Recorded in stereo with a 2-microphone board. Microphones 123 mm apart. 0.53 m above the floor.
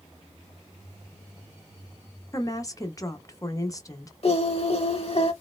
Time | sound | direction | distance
2.3 | a woman speaking | 30° left (ahead or behind) | 0.7 m
4.2 | singing | 55° left (ahead or behind) | 0.6 m